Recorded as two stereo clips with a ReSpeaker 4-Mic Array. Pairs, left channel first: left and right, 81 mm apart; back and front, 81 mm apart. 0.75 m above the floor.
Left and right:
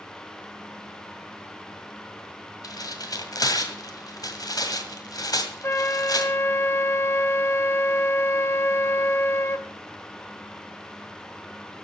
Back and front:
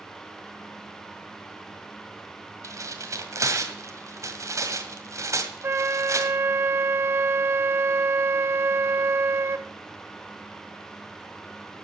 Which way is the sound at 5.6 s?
45° left.